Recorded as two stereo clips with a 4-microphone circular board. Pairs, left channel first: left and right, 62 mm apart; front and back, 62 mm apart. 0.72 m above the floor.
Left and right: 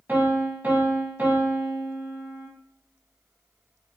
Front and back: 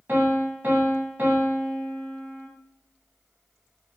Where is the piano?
140° right, 0.7 m.